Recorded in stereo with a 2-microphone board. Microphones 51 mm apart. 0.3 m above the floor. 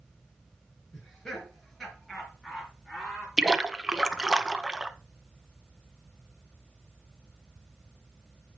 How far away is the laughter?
About 4 m.